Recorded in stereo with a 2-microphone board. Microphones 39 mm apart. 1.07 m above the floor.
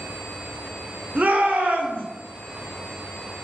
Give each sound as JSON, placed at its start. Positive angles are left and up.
{"t": 1.1, "sound": "a shout", "side_deg": -40, "distance_m": 0.5}